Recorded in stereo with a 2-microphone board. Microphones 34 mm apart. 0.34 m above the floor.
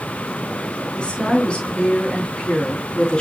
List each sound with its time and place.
1.0 s a woman speaking: 25° left (ahead or behind), 3.5 m